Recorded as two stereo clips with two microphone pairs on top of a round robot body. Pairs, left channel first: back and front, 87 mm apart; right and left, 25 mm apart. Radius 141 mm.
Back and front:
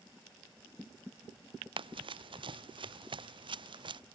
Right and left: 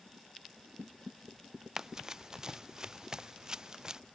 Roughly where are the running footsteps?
Ahead.